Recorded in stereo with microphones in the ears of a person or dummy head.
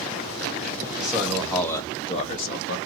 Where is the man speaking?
5° right (ahead or behind), 1.3 m; by 2.8 s 65° left (ahead or behind), 0.8 m.